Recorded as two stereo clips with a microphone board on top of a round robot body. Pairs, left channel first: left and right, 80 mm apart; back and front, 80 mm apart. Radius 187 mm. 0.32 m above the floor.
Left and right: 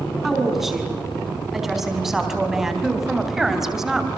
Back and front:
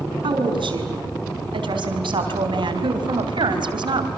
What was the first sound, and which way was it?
A woman speaking, 5° right.